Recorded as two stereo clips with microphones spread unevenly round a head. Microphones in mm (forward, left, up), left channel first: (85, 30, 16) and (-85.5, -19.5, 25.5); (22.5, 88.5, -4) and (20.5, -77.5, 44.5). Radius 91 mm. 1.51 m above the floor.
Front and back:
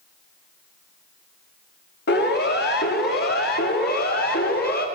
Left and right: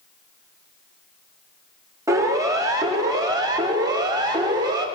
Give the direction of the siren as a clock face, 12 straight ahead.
1 o'clock.